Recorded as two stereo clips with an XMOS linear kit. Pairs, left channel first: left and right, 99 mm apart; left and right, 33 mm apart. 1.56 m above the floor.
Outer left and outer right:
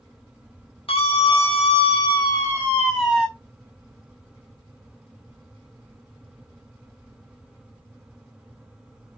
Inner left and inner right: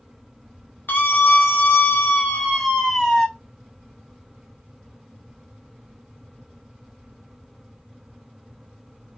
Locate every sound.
0.9 s a scream: 65° left (ahead or behind), 1.0 m; by 3.3 s 5° right (ahead or behind), 0.8 m